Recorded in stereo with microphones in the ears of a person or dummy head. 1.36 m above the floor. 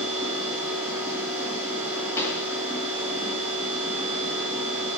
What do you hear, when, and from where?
0.0 s a machine running: 10° right (ahead or behind), 4.5 m
2.2 s a pop: 20° left (ahead or behind), 1.9 m